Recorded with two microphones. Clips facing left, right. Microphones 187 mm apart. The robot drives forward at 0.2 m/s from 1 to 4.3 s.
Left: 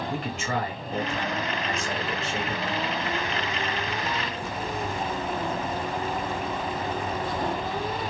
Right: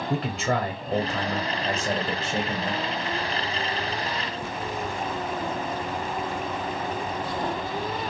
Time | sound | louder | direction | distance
0.1 | a man speaking | right 7 dB | 60° right (ahead or behind) | 0.6 m